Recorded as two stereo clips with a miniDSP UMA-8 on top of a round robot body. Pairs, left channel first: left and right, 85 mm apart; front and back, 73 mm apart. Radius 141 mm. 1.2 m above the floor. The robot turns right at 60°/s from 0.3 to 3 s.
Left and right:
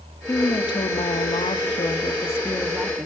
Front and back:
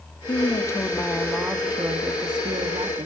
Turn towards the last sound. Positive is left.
turn(degrees=-170)